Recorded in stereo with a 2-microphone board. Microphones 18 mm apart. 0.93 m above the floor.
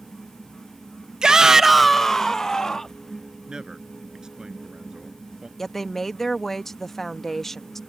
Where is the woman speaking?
20° left (ahead or behind).